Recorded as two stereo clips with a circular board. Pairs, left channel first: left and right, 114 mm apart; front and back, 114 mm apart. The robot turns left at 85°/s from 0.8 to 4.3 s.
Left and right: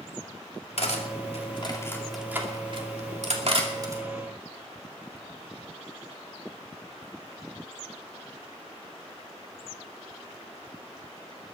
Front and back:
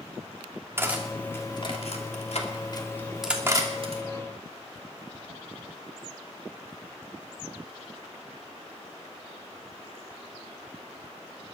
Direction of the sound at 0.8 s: 115° left.